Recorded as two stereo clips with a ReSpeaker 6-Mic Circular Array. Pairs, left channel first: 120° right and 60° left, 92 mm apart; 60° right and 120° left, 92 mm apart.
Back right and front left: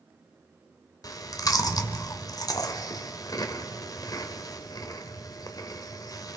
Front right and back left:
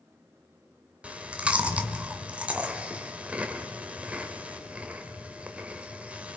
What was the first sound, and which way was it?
Chewing, 165° right.